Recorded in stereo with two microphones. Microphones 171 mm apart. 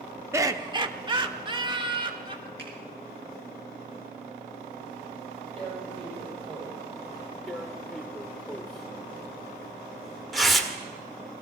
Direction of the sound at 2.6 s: 80° right.